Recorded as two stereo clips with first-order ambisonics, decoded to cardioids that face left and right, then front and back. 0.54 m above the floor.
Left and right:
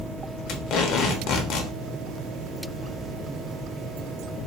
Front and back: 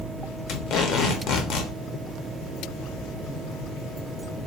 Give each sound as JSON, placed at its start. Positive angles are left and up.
{"t": 0.5, "sound": "tape being pulled", "azimuth_deg": 45, "distance_m": 0.9}